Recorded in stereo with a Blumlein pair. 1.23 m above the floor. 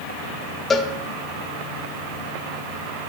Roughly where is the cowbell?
Ahead.